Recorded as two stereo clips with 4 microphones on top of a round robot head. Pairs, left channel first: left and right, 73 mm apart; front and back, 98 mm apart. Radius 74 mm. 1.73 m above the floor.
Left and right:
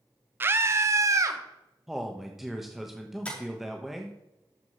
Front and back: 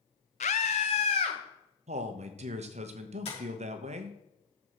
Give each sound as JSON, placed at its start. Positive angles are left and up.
{"t": 0.4, "sound": "a scream", "azimuth_deg": -30, "distance_m": 0.7}
{"t": 1.9, "sound": "a man speaking", "azimuth_deg": -175, "distance_m": 1.1}
{"t": 3.2, "sound": "tapping", "azimuth_deg": 20, "distance_m": 5.0}